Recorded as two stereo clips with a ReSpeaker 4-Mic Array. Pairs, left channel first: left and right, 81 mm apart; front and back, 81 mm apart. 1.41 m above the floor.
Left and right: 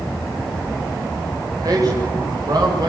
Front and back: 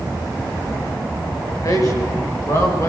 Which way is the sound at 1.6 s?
45° right.